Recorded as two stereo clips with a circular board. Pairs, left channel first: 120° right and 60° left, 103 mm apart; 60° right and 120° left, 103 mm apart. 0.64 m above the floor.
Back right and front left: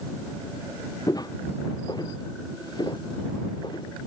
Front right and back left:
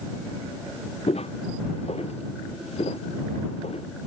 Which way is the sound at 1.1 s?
70° right.